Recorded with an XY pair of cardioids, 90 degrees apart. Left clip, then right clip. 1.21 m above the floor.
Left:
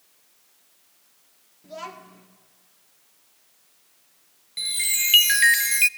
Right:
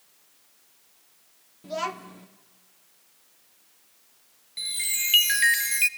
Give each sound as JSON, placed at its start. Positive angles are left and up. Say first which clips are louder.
{"t": 1.6, "sound": "a child speaking", "louder": "right 6 dB", "azimuth_deg": -55, "distance_m": 1.7}
{"t": 4.6, "sound": "a chime", "louder": "left 4 dB", "azimuth_deg": 30, "distance_m": 0.7}